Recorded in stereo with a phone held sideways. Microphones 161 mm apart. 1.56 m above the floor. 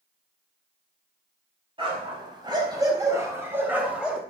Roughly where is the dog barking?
Right.